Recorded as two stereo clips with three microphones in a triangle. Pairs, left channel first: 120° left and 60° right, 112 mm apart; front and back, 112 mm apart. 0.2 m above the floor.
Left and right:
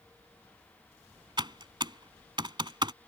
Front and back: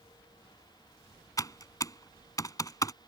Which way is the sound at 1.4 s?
40° right.